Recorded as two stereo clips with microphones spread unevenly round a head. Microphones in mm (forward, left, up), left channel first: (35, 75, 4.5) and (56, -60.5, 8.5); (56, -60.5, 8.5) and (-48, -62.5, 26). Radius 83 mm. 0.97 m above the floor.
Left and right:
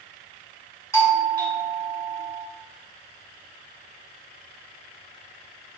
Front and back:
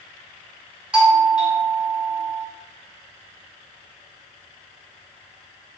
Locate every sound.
0.9 s a doorbell: 90° left, 1.3 m